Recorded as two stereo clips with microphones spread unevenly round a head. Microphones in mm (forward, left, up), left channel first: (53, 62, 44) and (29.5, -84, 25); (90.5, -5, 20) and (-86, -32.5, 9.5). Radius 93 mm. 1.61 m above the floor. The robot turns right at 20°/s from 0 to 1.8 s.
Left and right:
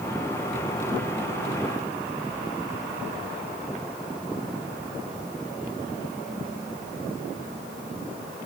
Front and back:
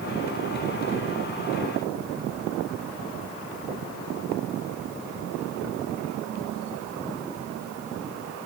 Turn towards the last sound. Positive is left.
No sound to turn to.